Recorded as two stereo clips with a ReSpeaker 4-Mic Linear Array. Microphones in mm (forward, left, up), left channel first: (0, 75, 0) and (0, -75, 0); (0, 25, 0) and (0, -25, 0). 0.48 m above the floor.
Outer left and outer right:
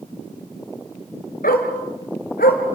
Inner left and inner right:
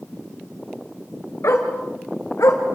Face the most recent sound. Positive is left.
turn(degrees=90)